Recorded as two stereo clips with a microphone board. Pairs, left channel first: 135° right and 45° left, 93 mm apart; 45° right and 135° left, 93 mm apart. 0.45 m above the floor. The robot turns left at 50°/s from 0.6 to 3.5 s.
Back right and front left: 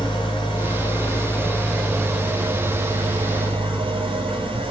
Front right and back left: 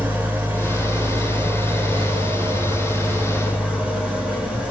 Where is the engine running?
155° right, 3 m; by 4.7 s 60° left, 3 m.